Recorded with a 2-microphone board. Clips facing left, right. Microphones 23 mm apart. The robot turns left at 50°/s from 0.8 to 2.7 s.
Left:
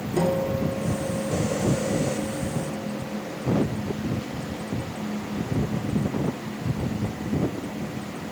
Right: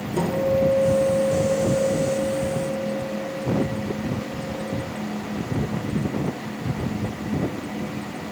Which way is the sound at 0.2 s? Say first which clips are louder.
Right 3 dB; 15° left.